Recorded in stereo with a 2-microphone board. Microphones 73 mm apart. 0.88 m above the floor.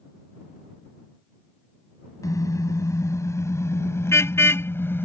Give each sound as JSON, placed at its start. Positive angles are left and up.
{"t": 2.2, "sound": "a car horn", "side_deg": 55}